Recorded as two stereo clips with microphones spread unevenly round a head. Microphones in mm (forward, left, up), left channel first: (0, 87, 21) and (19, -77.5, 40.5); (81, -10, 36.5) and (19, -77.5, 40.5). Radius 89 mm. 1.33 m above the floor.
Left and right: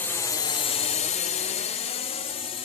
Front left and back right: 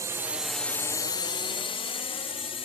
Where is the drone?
170° left; by 2.6 s 40° left.